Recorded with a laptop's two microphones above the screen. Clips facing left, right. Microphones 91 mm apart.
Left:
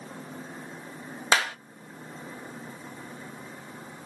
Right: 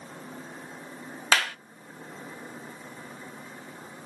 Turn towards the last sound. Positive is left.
turn(degrees=20)  # may be behind; listen again after turning